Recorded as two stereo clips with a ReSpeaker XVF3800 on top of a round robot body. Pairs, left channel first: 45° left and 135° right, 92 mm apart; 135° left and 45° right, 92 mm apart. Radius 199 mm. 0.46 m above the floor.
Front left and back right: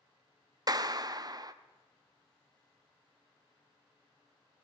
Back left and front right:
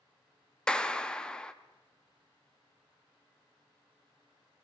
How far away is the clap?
About 1.0 m.